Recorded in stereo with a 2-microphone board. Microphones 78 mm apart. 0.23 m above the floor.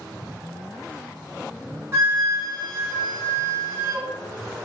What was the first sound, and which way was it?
A flute, 35° right (ahead or behind).